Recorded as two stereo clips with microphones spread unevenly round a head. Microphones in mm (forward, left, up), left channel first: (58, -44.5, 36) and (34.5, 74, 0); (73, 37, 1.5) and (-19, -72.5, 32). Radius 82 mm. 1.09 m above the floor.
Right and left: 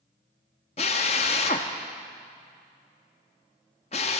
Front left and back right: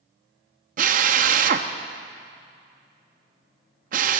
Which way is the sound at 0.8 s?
120° right.